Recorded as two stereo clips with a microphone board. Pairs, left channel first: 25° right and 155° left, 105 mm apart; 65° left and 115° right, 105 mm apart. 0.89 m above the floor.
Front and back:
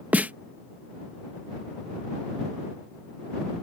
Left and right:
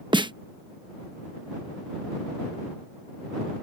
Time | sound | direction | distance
0.1 | a snare drum | 130° right | ?